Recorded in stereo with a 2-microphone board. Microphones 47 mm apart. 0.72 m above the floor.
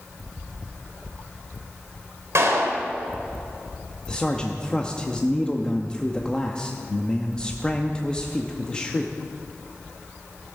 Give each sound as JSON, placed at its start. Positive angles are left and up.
{"t": 2.4, "sound": "a clap", "side_deg": -75, "distance_m": 2.5}
{"t": 4.1, "sound": "a man speaking", "side_deg": 20, "distance_m": 0.7}